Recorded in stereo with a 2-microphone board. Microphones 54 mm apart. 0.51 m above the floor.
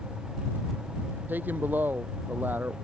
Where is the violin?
No violin in this recording.